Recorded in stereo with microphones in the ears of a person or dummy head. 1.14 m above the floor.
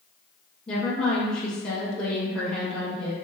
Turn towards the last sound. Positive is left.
turn(degrees=5)  # may be behind; listen again after turning